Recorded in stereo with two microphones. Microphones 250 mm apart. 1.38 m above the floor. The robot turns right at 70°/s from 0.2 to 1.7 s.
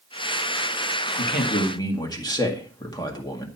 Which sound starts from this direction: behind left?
A man speaking, at 1.2 s.